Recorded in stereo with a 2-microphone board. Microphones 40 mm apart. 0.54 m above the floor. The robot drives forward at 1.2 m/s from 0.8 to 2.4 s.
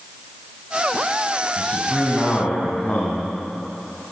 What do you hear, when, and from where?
1.6 s a man speaking: 30° left (ahead or behind), 3.5 m; by 3.2 s 25° left (ahead or behind), 4.5 m